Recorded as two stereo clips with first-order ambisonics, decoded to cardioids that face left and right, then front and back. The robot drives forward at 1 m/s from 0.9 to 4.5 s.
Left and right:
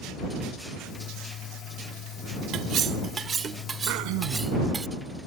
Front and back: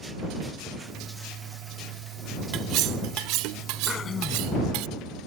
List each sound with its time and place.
2.5 s cutlery clinking: 135° right; by 4.9 s 165° right
3.9 s throat clearing: 65° right; by 4.5 s 70° right